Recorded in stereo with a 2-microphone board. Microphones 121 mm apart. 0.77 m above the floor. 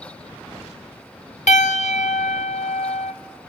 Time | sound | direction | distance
1.5 | a piano | 75° left (ahead or behind) | 0.8 m